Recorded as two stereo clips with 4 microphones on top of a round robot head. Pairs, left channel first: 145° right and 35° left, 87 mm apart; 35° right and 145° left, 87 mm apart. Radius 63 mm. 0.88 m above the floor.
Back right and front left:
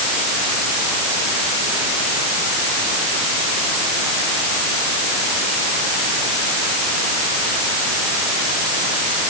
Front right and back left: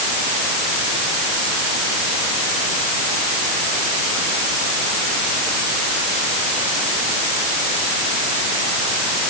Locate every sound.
Only background noise.